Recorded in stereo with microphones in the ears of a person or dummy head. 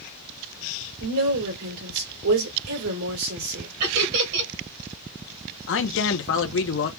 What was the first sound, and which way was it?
A woman speaking, 80° right.